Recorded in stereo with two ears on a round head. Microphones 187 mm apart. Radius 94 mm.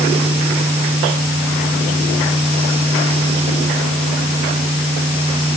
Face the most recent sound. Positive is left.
No sound to turn to.